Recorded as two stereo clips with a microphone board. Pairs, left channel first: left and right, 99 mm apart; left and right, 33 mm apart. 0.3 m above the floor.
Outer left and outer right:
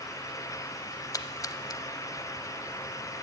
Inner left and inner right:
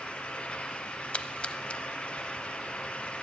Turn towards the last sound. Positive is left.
turn(degrees=35)  # may be behind; listen again after turning